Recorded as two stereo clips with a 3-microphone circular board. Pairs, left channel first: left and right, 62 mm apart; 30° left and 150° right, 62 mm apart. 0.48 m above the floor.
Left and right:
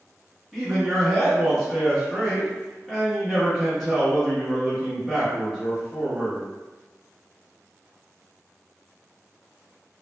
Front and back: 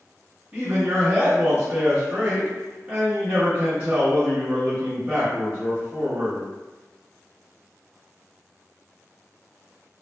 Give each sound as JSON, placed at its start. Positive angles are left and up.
{"t": 0.5, "sound": "a man speaking", "azimuth_deg": -175, "distance_m": 0.8}